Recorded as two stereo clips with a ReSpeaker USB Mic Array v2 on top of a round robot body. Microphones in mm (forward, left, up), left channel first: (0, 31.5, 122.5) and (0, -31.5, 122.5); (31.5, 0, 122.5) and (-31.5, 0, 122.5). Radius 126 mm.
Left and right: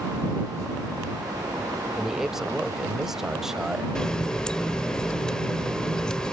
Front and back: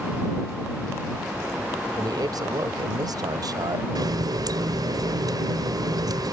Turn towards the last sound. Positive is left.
turn(degrees=165)